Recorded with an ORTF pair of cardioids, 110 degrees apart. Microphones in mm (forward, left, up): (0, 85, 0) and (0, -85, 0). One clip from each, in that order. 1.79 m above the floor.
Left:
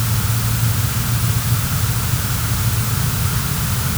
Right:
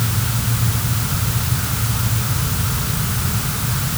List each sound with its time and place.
Only background noise.